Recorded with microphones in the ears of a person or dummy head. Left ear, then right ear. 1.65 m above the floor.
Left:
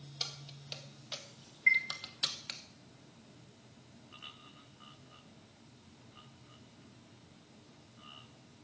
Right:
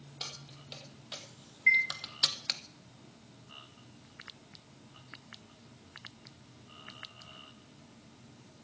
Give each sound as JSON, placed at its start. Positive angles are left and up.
{"t": 0.2, "sound": "keys jangling", "side_deg": 15, "distance_m": 2.0}
{"t": 1.7, "sound": "a chime", "side_deg": 5, "distance_m": 1.4}